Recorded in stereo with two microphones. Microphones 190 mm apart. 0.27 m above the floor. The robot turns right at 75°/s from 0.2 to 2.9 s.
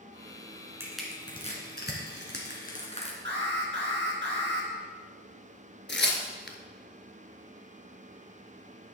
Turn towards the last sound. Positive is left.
turn(degrees=70)  # may be behind; listen again after turning